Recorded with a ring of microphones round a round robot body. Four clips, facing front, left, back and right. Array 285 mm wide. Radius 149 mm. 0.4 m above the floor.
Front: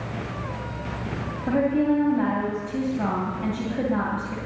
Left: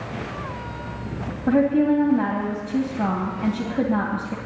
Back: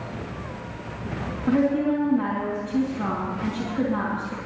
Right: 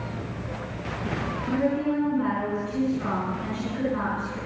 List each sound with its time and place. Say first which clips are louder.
1.5 s a woman speaking: left 7 dB, even; 70° left, 2.5 m